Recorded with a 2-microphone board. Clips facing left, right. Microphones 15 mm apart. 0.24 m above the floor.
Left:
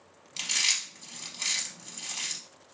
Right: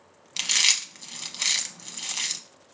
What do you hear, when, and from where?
0.4 s chewing: 35° right (ahead or behind), 0.6 m